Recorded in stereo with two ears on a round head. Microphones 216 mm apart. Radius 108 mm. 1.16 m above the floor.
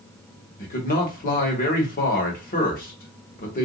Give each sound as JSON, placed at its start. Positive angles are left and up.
{"t": 0.6, "sound": "a man speaking", "side_deg": 35, "distance_m": 1.3}